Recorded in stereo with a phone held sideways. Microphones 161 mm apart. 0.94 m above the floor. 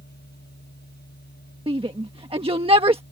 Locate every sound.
0.0 s a machine running: 85° left
1.7 s a shout: 35° right (ahead or behind)